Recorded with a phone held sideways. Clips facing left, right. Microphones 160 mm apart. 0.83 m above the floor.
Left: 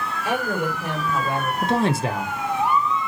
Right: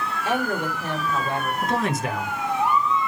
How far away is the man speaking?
About 0.6 m.